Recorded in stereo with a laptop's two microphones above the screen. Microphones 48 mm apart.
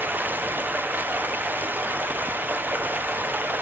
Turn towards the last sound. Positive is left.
turn(degrees=-40)  # may be behind; listen again after turning